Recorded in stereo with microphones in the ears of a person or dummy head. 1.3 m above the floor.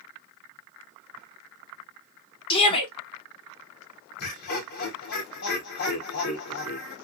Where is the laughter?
55° left (ahead or behind), 1.7 m.